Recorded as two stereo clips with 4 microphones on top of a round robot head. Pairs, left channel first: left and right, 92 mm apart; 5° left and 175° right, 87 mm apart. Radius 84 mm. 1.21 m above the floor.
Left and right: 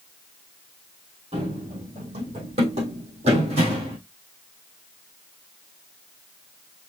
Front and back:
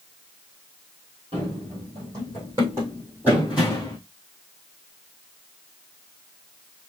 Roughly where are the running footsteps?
Behind right.